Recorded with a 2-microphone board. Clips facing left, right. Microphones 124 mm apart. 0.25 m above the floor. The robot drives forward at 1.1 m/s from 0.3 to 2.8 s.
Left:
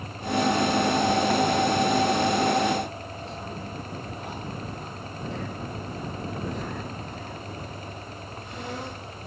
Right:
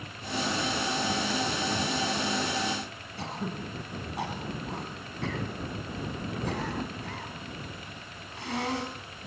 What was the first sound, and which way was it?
Throat clearing, 80° right.